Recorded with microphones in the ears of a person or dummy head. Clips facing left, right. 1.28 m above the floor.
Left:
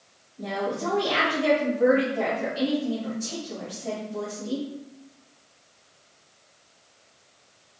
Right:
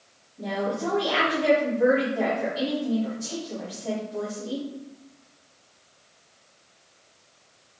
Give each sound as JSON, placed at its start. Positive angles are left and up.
{"t": 0.4, "sound": "a woman speaking", "side_deg": -10, "distance_m": 2.0}